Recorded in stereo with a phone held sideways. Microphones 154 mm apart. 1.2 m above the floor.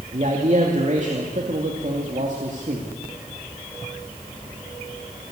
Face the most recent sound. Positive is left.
turn(degrees=-50)  # may be behind; listen again after turning